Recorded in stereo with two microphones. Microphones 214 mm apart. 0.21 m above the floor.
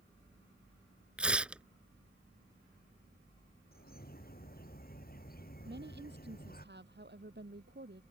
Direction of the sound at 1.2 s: 5° right (ahead or behind).